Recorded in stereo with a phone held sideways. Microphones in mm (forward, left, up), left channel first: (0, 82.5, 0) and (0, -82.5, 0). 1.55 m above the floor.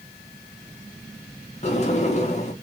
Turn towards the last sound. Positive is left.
turn(degrees=45)  # may be behind; listen again after turning